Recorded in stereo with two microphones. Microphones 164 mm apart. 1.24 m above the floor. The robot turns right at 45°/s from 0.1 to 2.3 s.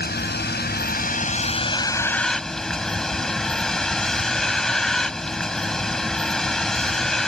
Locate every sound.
0.0 s a vehicle: 80° left; by 7.3 s 175° left